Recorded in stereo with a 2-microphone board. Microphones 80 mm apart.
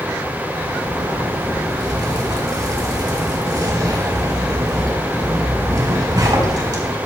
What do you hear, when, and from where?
0.5 s a zipper: 60° right (ahead or behind), 3.5 m